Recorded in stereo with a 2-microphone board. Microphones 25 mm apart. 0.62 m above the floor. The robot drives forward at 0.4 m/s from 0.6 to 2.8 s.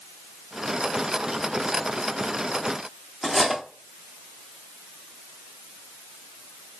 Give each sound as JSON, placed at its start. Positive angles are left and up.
{"t": 3.2, "sound": "cutlery clinking", "side_deg": -10, "distance_m": 0.6}